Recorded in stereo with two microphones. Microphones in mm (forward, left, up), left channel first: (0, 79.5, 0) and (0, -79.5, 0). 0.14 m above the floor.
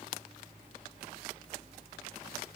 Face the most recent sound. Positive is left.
No sound to turn to.